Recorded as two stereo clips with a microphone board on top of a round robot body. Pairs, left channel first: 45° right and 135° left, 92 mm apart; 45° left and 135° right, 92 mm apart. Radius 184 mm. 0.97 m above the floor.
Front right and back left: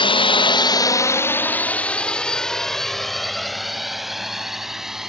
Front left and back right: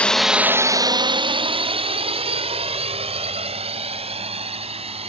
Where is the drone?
30° right; by 5.1 s 140° right.